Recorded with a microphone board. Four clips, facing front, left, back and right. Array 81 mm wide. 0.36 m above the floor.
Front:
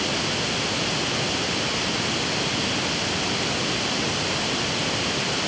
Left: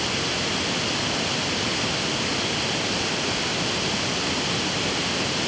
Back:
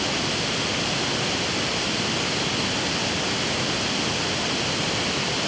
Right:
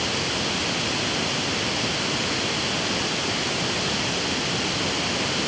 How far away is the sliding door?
No sliding door in this recording.